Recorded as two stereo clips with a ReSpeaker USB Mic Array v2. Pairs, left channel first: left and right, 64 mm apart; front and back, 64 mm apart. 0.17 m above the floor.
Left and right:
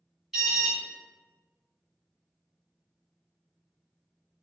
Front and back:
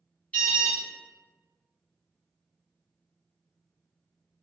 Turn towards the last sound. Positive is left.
turn(degrees=-25)